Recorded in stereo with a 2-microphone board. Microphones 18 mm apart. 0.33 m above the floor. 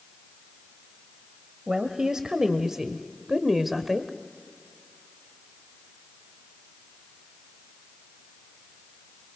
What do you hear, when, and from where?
1.7 s a woman speaking: 45° right (ahead or behind), 1.5 m; by 4.1 s 5° right (ahead or behind), 1.3 m